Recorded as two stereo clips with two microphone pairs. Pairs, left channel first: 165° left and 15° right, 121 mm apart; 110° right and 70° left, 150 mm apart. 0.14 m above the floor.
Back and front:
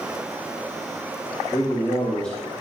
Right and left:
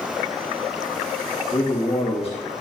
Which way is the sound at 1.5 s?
140° right.